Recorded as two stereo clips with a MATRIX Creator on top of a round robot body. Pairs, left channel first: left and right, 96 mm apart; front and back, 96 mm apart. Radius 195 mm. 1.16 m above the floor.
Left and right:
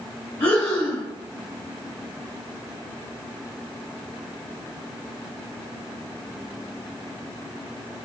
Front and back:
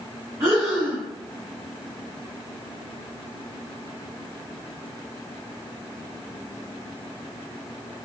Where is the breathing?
125° left, 1.0 m.